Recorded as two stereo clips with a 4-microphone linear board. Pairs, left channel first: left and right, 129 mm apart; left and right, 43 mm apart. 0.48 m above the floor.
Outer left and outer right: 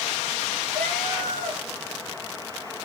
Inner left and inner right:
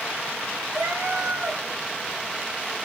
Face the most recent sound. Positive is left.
turn(degrees=-85)